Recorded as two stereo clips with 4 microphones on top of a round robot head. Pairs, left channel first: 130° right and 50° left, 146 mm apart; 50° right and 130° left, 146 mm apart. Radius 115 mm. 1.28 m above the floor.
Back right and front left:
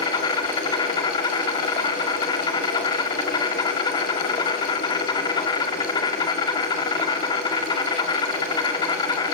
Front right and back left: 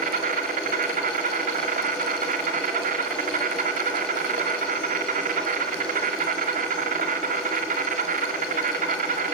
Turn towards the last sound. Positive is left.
turn(degrees=165)